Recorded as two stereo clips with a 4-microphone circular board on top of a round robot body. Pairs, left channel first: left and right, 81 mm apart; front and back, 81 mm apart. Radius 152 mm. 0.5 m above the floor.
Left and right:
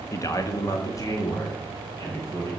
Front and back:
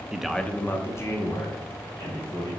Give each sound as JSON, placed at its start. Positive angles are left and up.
{"t": 0.1, "sound": "a man speaking", "azimuth_deg": 105, "distance_m": 0.9}